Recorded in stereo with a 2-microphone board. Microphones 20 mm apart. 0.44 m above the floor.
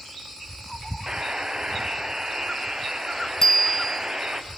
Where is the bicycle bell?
30° left (ahead or behind), 2.5 m.